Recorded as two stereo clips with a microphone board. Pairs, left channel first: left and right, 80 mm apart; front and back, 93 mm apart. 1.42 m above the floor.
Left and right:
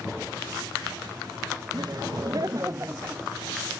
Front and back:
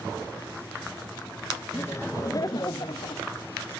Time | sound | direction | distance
1.7 | laughter | 60° right | 2 m